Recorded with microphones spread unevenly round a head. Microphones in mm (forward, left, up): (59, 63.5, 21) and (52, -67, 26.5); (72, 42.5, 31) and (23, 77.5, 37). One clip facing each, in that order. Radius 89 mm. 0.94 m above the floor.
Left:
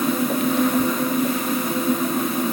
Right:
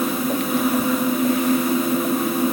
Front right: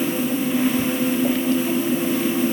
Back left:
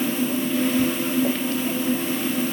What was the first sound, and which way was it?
Only background noise.